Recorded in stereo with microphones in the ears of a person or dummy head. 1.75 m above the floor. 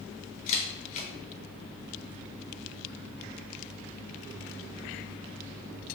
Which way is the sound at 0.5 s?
45° left (ahead or behind).